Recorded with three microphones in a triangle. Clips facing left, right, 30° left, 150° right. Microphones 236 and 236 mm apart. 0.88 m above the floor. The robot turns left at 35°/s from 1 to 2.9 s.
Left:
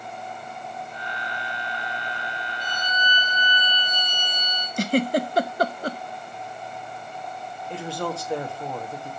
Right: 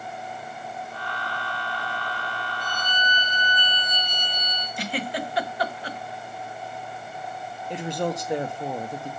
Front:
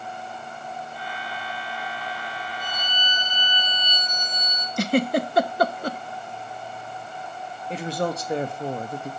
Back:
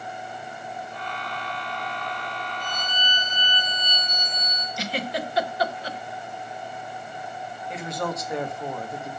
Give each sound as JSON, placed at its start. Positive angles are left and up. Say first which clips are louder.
{"t": 2.6, "sound": "a violin", "louder": "left 1 dB, back 1 dB", "azimuth_deg": -20, "distance_m": 5.0}
{"t": 4.8, "sound": "a giggle", "louder": "left 9 dB, front 9 dB", "azimuth_deg": 55, "distance_m": 0.8}
{"t": 7.7, "sound": "a woman speaking", "louder": "right 2 dB, front 4 dB", "azimuth_deg": -25, "distance_m": 1.4}